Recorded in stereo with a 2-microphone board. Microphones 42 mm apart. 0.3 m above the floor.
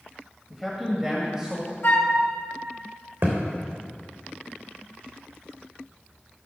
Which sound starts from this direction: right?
A thud, at 3.2 s.